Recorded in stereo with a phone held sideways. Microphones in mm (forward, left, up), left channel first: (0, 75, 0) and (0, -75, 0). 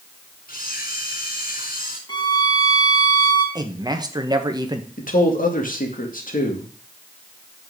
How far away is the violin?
About 1.6 m.